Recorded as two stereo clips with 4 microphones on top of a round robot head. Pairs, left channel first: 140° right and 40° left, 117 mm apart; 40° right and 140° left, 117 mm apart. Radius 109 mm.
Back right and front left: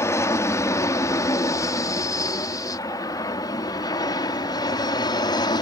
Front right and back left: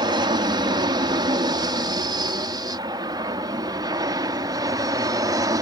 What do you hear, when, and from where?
0.0 s an aircraft: 165° left; by 5.6 s 175° right